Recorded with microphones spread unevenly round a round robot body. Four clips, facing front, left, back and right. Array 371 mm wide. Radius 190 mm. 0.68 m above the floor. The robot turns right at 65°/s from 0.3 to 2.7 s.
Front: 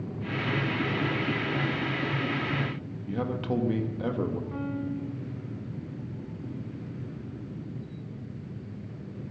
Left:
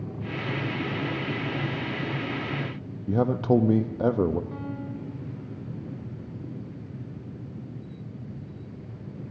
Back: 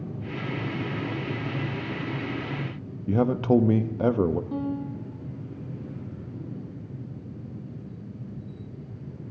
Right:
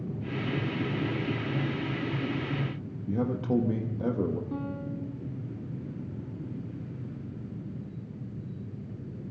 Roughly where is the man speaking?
Behind left.